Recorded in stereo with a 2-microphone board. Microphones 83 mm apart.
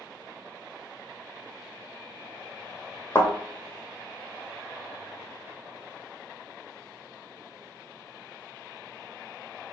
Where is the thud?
30° left (ahead or behind), 1.6 m.